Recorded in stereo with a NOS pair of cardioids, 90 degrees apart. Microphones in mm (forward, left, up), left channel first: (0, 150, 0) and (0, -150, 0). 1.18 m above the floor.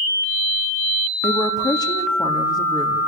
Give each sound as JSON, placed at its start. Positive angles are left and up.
{"t": 1.2, "sound": "a woman speaking", "azimuth_deg": 10, "distance_m": 2.0}